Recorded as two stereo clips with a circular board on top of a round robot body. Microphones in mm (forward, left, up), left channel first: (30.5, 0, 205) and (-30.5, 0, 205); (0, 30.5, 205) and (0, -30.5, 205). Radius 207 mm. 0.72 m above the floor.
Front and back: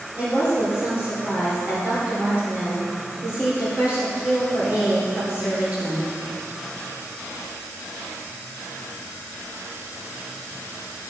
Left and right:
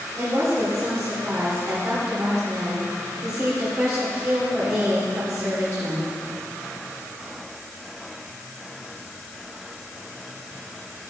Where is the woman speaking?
115° right, 3 m.